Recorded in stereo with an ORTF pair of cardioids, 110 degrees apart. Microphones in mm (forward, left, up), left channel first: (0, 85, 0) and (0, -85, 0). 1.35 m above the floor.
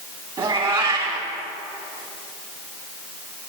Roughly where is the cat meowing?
Ahead right.